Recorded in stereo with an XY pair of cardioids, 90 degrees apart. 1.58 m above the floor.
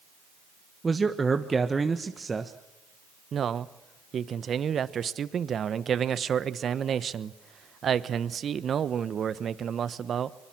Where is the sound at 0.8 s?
30° right, 1.3 m.